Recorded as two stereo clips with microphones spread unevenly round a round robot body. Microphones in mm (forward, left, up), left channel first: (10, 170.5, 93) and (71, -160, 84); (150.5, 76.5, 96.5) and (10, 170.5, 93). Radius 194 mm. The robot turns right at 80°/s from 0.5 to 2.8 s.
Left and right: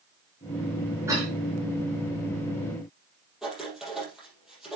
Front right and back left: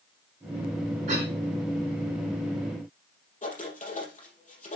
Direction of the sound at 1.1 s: 160° right.